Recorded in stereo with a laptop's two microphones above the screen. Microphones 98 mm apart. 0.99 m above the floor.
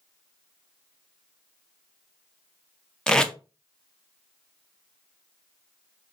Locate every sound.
3.1 s tape being pulled: 5° left (ahead or behind), 0.5 m